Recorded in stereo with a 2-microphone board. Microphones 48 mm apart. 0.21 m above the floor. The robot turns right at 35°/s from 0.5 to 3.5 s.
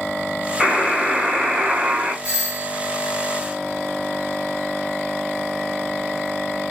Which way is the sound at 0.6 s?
Centre (ahead or behind).